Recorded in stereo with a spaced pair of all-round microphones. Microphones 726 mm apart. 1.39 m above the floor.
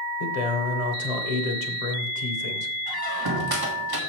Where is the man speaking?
55° left (ahead or behind), 1.2 m.